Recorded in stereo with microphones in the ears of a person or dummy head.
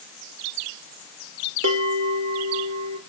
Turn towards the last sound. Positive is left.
turn(degrees=-80)